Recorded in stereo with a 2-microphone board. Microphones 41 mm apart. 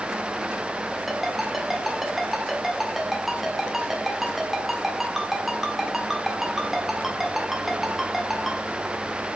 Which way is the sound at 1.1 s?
5° right (ahead or behind).